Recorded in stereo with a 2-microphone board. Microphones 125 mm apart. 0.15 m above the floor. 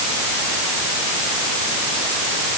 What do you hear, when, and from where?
Only background noise.